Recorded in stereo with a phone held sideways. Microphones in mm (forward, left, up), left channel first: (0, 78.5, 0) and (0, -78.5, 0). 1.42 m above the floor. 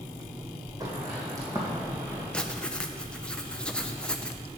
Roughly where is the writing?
Centre.